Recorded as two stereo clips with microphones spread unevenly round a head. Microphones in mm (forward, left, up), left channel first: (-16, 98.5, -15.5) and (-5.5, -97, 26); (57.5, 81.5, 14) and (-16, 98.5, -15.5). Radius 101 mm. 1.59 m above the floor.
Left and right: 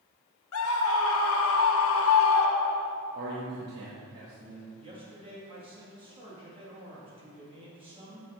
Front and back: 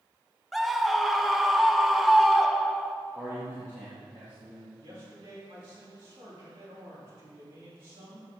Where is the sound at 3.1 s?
115° right, 1.8 m.